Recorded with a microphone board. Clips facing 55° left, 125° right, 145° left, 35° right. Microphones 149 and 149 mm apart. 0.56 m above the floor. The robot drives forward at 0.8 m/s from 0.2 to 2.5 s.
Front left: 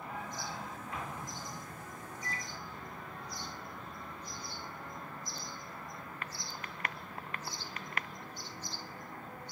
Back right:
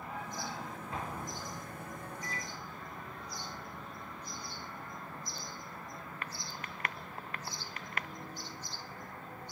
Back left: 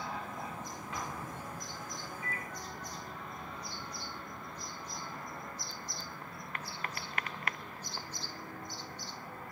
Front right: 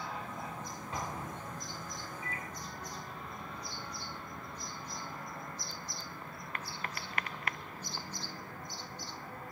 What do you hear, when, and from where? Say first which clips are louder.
0.9 s an explosion: back right 3 dB, front right 2 dB; 75° right, 0.9 m; by 1.8 s 130° right, 1.0 m
2.2 s a microwave: front left 2 dB, back left 1 dB; 105° right, 2.5 m; by 2.5 s 110° right, 3 m